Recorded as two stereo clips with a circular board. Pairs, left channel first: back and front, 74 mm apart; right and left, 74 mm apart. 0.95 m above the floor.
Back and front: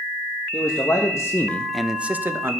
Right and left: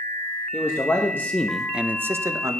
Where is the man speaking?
140° right, 1.3 m; by 2.6 s 50° left, 1.1 m.